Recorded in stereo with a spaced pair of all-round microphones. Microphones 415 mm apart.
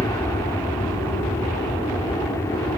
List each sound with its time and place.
0.0 s an aircraft: 5° left (ahead or behind)